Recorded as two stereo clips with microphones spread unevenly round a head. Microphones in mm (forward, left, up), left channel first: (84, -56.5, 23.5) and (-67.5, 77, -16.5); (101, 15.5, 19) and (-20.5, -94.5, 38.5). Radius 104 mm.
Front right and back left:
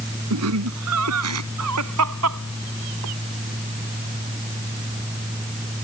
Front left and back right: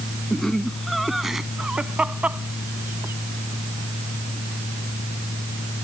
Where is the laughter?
130° left; by 5.8 s 160° left.